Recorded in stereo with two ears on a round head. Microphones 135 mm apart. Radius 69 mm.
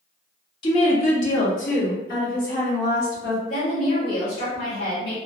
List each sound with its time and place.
0.6 s a woman speaking: 30° left (ahead or behind), 0.6 m; by 3.4 s 60° left (ahead or behind), 1.9 m
3.5 s a woman speaking: 65° left (ahead or behind), 1.6 m